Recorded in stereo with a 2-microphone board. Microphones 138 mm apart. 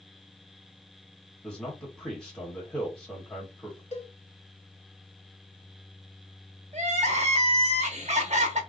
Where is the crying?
55° right (ahead or behind), 0.9 m.